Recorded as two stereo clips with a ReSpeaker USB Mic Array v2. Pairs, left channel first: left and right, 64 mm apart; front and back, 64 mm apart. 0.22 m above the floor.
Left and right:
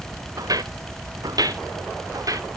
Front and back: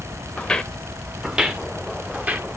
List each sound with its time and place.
0.4 s footsteps: 75° right, 1.3 m; by 2.5 s 115° right, 2.5 m